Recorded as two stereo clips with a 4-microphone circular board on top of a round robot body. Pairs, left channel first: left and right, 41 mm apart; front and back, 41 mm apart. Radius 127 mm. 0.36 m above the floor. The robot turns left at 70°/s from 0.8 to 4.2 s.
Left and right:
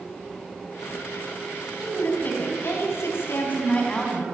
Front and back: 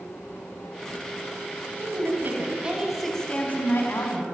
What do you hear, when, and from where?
1.8 s a woman speaking: 170° left, 4.5 m; by 4.2 s 5° left, 4.5 m